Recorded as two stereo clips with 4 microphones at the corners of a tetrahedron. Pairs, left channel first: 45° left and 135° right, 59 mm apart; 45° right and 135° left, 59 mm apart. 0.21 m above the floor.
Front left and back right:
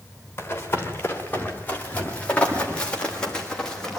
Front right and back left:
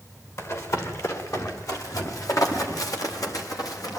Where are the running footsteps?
10° right, 6.5 m; by 4.0 s 35° right, 7.5 m.